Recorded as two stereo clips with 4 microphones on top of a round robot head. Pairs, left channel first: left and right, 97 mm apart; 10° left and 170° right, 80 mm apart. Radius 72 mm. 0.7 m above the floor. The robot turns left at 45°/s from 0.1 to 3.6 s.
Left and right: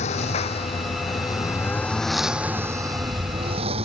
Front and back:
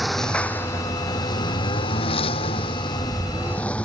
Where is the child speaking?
No child speaking in this recording.